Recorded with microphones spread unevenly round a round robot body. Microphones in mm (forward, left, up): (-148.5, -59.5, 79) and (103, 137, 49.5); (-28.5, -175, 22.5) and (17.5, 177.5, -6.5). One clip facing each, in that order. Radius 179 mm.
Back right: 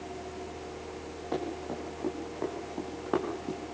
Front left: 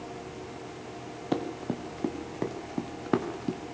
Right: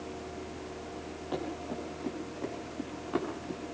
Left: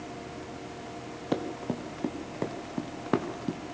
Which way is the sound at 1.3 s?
70° left.